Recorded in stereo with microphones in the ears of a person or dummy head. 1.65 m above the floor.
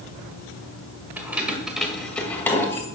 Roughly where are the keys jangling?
Centre.